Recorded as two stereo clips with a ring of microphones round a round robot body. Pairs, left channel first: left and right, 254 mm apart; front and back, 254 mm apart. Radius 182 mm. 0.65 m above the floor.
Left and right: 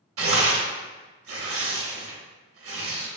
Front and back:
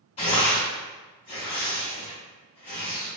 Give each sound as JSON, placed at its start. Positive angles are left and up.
{"t": 0.2, "sound": "tearing paper", "azimuth_deg": -70, "distance_m": 0.8}